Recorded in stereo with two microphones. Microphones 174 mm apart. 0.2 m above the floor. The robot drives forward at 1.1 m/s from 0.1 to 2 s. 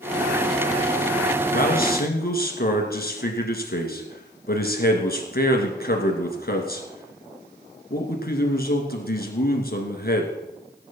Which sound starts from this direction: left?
A man speaking, at 1.5 s.